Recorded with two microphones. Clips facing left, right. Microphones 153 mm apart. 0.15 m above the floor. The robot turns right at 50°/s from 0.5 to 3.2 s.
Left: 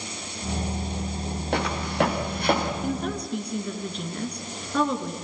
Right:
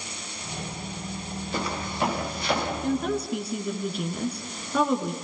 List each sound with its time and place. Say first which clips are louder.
1.5 s footsteps: left 6 dB; 80° left, 5.5 m; by 2.7 s 50° left (ahead or behind), 6.5 m
2.8 s a woman speaking: right 2 dB; 5° left (ahead or behind), 2 m; by 5.1 s 5° right (ahead or behind), 2 m